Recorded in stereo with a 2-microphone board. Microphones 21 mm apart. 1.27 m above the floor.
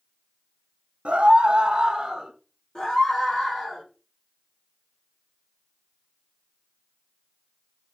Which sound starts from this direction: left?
A scream, at 2.8 s.